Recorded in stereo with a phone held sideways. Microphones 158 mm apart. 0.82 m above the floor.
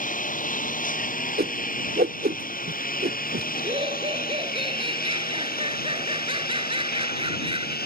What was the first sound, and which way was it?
A lawn mower, 55° left (ahead or behind).